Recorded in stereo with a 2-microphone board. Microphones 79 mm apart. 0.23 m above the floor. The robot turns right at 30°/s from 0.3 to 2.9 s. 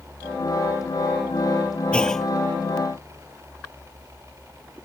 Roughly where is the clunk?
Centre.